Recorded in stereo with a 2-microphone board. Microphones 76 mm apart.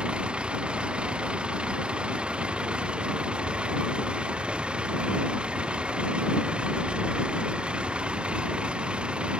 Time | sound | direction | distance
0.0 | a vehicle | 15° right (ahead or behind) | ?